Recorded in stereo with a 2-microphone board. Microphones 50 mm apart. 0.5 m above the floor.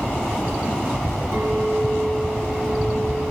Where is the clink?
70° right (ahead or behind), 7.5 m.